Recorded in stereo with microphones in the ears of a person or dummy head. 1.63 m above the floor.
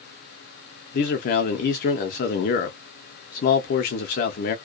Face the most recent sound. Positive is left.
turn(degrees=50)  # may be behind; listen again after turning